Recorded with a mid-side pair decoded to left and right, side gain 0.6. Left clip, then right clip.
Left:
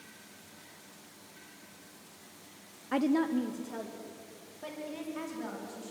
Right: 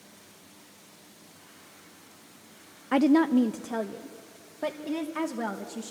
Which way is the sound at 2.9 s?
30° right.